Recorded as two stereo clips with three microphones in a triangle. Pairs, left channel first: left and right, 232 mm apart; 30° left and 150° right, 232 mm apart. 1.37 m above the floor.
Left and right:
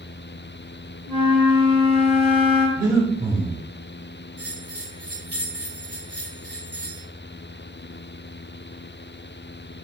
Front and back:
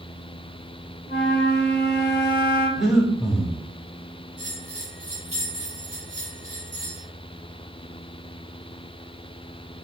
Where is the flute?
95° right, 2 m.